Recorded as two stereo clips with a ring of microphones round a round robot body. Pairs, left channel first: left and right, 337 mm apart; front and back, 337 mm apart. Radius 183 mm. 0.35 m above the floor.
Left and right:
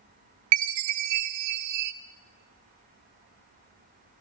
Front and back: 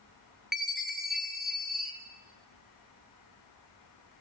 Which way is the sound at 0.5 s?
90° right.